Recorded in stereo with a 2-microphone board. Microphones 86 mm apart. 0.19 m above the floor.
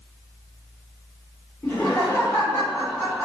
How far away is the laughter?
About 1.7 m.